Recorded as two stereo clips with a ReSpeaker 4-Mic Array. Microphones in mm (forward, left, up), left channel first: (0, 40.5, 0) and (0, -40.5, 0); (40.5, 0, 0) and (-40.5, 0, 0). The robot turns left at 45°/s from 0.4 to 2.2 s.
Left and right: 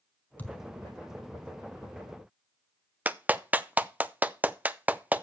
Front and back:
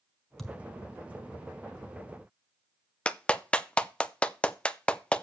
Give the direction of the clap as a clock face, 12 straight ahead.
2 o'clock.